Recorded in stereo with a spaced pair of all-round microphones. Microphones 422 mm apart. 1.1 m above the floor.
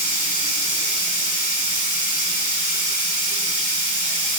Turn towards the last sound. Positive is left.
turn(degrees=-55)  # may be behind; listen again after turning